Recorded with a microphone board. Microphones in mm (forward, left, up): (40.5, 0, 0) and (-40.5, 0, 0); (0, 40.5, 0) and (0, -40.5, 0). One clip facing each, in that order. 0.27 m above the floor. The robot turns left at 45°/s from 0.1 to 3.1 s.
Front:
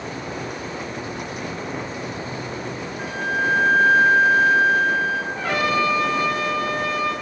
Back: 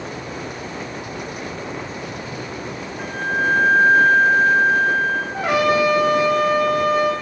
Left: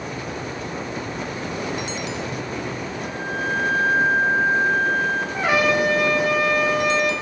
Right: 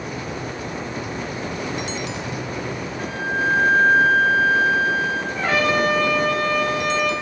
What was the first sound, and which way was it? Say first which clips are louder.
A flute: back 2 dB, right 5 dB; 80° right.